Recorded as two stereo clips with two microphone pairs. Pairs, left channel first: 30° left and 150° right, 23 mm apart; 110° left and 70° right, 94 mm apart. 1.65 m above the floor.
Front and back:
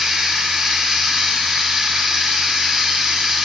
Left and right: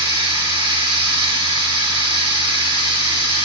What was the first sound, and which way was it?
Running water, 95° right.